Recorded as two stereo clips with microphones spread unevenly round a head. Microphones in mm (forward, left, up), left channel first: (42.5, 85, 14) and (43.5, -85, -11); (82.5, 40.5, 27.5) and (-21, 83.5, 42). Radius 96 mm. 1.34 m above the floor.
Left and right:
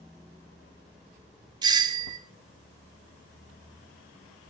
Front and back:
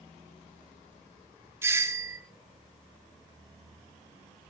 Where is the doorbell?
135° right, 0.9 m.